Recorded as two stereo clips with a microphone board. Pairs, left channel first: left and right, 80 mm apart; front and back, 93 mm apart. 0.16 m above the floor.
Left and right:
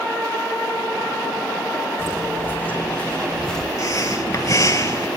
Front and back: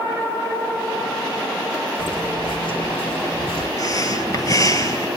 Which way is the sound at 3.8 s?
50° left.